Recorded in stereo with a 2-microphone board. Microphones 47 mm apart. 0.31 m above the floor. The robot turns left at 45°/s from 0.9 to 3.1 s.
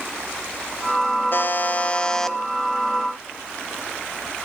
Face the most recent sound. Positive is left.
turn(degrees=-30)